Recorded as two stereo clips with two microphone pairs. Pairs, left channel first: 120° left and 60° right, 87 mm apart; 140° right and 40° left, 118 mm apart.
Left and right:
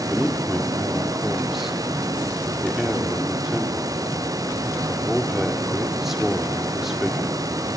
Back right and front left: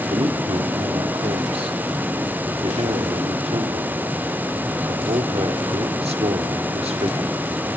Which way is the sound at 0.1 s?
30° left.